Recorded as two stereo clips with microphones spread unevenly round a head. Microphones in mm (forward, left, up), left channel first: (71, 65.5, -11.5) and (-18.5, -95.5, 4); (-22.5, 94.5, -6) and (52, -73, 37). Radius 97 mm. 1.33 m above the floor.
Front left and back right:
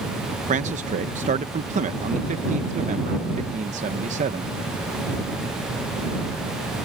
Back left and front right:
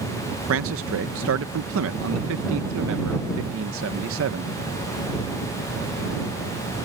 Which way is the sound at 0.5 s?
70° right.